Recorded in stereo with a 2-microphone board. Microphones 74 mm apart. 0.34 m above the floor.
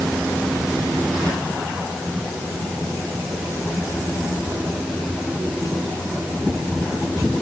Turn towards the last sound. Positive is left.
No sound to turn to.